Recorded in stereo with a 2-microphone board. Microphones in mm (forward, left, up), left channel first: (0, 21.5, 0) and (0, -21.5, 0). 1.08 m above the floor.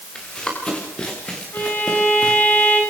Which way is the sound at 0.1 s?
20° left (ahead or behind).